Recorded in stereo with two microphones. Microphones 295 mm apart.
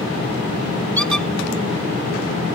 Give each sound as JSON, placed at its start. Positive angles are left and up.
{"t": 1.0, "sound": "a squeak", "side_deg": -70}